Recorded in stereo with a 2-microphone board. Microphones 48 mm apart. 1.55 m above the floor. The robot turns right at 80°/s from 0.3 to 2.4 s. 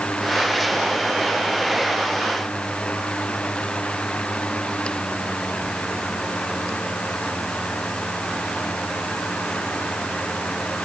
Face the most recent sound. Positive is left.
No sound to turn to.